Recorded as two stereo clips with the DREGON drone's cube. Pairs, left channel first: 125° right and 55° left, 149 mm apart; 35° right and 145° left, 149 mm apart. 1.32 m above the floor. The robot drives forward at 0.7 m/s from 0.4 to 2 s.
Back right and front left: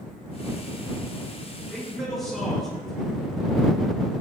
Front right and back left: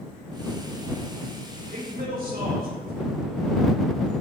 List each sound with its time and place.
1.7 s a man speaking: 145° left, 5.5 m